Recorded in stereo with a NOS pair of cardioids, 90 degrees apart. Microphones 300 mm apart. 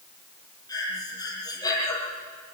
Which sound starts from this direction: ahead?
Breathing, at 0.7 s.